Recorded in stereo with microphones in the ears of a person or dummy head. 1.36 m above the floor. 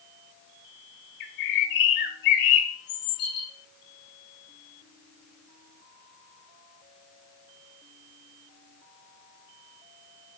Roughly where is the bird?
Left.